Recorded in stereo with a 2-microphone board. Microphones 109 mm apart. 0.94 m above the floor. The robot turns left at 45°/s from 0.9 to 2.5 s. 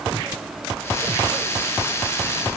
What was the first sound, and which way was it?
Only background noise.